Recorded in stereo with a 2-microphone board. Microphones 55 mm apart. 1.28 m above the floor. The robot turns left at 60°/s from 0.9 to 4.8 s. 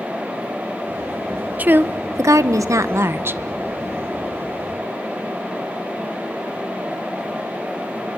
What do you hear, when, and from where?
1.6 s a woman speaking: 30° right, 1.0 m; by 3.4 s 140° right, 1.0 m